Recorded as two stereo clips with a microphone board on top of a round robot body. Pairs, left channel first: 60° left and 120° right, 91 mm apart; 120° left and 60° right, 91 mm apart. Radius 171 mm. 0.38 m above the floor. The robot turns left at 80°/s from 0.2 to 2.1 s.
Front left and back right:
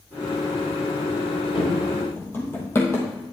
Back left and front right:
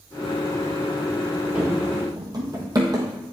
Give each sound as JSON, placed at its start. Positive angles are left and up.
{"t": 1.6, "sound": "running footsteps", "azimuth_deg": 20, "distance_m": 0.6}